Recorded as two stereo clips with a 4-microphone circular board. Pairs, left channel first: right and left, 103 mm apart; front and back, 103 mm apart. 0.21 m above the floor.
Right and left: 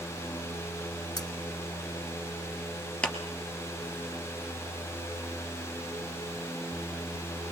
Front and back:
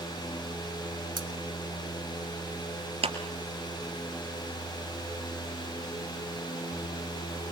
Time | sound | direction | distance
1.2 | cutlery clinking | 140° right | 2.0 m
3.0 | a clap | 170° right | 2.5 m